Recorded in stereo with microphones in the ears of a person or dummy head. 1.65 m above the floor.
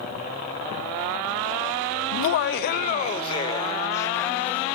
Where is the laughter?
65° left (ahead or behind), 0.5 m; by 4.7 s 5° left (ahead or behind), 1.3 m.